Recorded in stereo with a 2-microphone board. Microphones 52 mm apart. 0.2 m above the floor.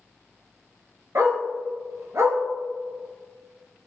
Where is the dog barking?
70° right (ahead or behind), 1.1 m.